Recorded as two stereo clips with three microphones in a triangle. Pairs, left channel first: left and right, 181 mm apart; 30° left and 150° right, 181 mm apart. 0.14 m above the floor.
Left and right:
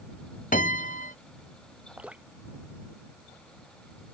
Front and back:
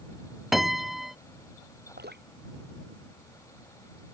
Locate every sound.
0.5 s a piano: 120° left
2.0 s dripping: 175° right